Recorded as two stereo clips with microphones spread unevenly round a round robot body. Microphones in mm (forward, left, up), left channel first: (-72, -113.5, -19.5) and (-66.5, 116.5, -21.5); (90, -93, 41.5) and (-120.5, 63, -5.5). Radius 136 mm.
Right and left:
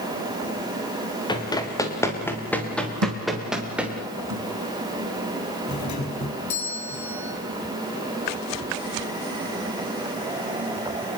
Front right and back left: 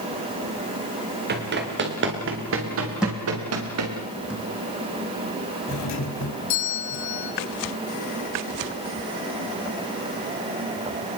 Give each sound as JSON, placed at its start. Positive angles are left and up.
{"t": 1.3, "sound": "running footsteps", "azimuth_deg": -165, "distance_m": 7.0}
{"t": 3.0, "sound": "a thud", "azimuth_deg": 55, "distance_m": 3.0}
{"t": 5.7, "sound": "a doorbell", "azimuth_deg": -65, "distance_m": 5.0}